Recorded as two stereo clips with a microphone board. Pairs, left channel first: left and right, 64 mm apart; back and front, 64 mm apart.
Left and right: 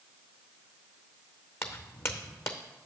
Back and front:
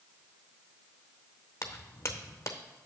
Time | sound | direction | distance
1.6 | footsteps | 135° left | 0.7 m